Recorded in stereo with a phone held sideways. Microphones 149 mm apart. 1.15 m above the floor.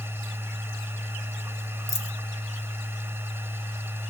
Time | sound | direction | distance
0.0 | a machine running | 15° right (ahead or behind) | 0.9 m
1.9 | a dropped coin | 15° left (ahead or behind) | 0.8 m